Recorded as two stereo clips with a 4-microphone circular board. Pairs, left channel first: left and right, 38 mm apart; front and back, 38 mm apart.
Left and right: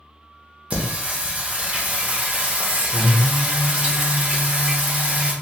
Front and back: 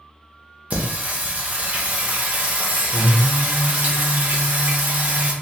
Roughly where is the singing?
Behind right.